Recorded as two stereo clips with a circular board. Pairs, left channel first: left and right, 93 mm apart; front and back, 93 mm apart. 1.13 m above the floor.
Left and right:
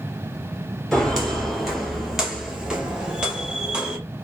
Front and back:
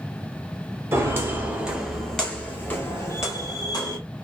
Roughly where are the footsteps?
Behind.